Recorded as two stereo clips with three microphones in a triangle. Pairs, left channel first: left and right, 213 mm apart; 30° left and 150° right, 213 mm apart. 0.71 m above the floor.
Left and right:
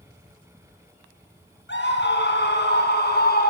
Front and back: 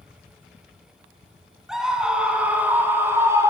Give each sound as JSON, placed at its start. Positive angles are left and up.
{"t": 1.7, "sound": "a scream", "azimuth_deg": 120, "distance_m": 6.0}